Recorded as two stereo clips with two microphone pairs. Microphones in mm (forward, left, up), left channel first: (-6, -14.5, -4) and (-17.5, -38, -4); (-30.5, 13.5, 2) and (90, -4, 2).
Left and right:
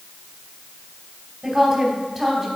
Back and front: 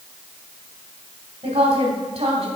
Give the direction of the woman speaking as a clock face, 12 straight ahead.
1 o'clock.